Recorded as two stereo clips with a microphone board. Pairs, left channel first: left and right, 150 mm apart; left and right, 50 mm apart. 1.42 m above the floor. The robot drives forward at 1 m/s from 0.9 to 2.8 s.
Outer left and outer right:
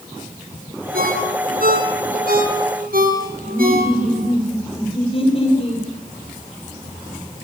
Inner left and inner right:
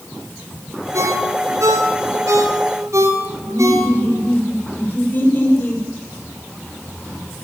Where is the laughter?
40° left (ahead or behind), 9 m.